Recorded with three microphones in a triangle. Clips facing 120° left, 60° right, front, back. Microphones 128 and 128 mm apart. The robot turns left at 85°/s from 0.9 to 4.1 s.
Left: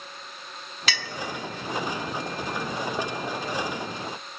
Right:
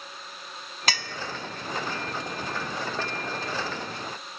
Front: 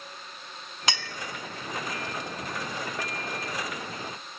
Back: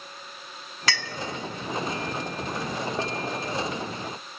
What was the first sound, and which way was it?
A clink, 60° right.